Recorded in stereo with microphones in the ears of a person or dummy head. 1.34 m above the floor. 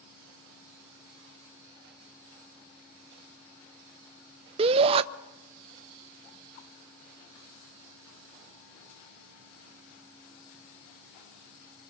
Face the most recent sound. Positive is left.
turn(degrees=-35)  # may be behind; listen again after turning